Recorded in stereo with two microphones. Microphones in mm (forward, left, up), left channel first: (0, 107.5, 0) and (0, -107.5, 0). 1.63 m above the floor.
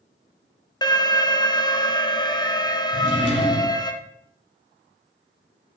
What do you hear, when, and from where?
0.8 s an alarm: 20° left (ahead or behind), 0.6 m
2.9 s a drawer: 75° right (ahead or behind), 4 m